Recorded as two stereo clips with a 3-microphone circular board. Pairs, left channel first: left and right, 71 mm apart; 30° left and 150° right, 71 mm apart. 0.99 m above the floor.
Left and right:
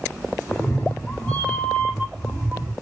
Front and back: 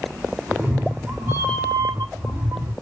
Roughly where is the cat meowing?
Behind left.